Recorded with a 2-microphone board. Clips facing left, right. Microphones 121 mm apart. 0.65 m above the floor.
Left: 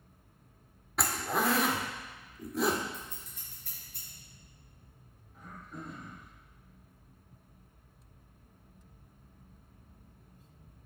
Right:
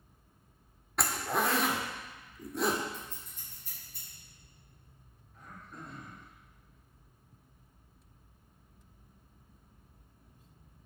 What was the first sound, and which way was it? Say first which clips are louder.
A zipper: even; centre (ahead or behind).